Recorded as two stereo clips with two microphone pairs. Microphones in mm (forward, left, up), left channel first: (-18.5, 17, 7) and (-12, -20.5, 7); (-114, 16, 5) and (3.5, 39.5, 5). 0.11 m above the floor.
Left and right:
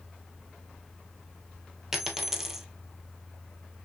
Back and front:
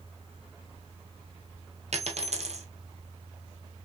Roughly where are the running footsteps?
No running footsteps in this recording.